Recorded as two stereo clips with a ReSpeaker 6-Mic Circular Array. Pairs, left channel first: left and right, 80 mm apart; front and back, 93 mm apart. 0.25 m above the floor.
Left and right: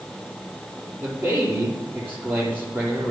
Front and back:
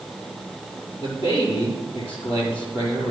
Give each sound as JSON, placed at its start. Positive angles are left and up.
{"t": 1.0, "sound": "a man speaking", "azimuth_deg": -25, "distance_m": 6.0}